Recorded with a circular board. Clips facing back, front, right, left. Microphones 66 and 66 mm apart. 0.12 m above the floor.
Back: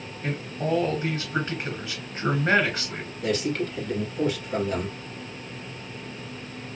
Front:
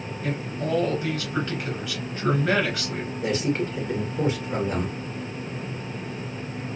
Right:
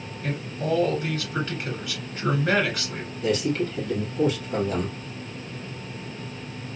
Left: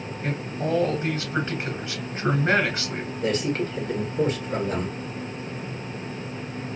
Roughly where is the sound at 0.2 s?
Behind left.